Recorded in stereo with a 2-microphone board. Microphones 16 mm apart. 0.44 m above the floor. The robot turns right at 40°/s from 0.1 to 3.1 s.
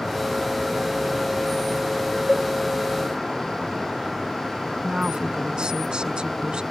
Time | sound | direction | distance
2.3 | a cowbell | 30° right (ahead or behind) | ?
4.8 | a woman speaking | 70° right (ahead or behind) | ?